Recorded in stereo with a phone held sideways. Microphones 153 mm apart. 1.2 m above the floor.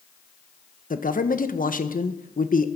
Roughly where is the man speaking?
Left.